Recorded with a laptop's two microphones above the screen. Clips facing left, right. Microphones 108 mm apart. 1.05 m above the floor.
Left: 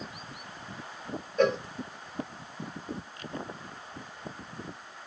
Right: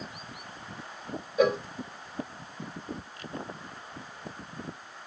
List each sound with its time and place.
1.4 s a cowbell: 10° right (ahead or behind), 0.6 m